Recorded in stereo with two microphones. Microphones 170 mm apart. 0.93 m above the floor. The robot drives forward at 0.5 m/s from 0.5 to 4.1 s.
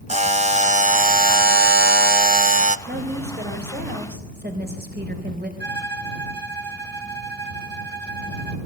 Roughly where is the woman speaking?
Right.